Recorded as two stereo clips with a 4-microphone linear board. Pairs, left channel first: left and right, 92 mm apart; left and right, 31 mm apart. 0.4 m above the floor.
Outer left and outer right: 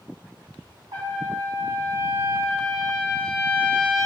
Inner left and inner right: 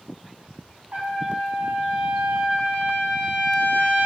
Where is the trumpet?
60° right (ahead or behind), 1.0 m.